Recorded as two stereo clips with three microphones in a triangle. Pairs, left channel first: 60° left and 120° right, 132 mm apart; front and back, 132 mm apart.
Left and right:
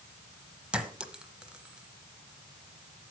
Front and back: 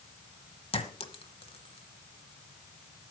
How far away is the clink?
About 1.0 m.